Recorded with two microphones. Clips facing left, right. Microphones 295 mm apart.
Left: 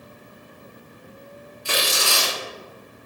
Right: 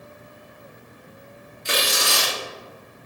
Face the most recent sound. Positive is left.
turn(degrees=-20)  # may be behind; listen again after turning